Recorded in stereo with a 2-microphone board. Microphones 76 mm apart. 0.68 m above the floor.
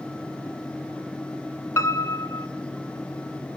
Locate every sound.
1.8 s a piano: 35° left (ahead or behind), 1.4 m